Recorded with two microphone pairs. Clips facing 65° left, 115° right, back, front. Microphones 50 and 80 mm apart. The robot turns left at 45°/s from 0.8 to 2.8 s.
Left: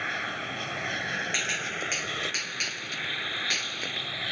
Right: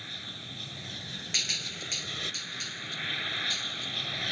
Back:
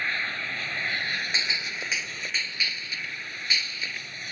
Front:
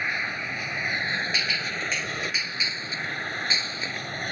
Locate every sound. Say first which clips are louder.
0.0 s an aircraft: left 12 dB, front 1 dB; 75° left; by 4.3 s 15° right
1.3 s a gunshot: left 6 dB, front 2 dB; 125° left; by 4.1 s 60° left